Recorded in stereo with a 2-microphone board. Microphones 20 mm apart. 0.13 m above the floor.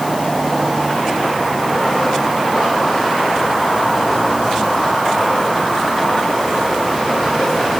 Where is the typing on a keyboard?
No typing on a keyboard in this recording.